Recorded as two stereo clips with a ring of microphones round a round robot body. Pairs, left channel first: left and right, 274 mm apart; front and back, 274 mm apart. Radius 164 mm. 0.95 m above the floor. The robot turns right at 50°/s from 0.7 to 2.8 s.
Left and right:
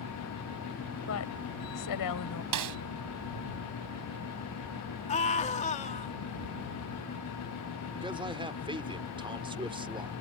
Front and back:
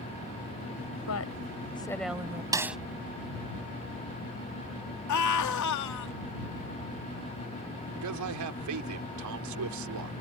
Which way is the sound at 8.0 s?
160° right.